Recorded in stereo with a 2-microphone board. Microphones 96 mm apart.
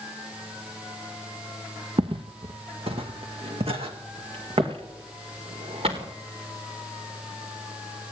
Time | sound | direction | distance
2.0 | footsteps | 60° right (ahead or behind) | 0.9 m